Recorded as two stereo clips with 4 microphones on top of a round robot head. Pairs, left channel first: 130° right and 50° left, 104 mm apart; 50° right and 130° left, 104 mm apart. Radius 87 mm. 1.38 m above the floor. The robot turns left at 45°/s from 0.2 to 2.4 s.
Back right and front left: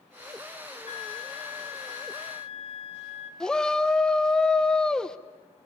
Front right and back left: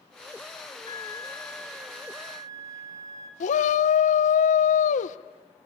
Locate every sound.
0.8 s a flute: 100° right, 1.9 m; by 3.3 s 170° right, 1.9 m
3.4 s a shout: 45° right, 0.8 m